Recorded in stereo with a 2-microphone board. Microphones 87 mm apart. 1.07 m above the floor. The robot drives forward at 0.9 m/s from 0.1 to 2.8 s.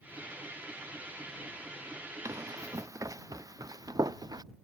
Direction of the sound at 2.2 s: 35° right (ahead or behind).